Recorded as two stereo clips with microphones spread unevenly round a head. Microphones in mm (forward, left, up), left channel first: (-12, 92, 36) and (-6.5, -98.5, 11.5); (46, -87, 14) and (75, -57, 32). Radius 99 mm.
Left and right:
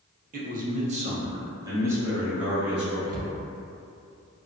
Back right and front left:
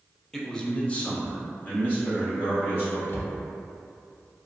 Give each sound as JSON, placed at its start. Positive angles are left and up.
{"t": 0.3, "sound": "a man speaking", "azimuth_deg": -75, "distance_m": 0.6}
{"t": 3.1, "sound": "a cupboard door", "azimuth_deg": -95, "distance_m": 0.5}